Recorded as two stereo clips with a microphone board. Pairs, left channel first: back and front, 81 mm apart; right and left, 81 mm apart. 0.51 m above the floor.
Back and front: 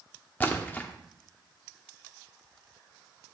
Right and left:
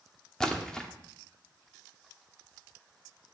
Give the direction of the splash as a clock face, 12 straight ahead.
5 o'clock.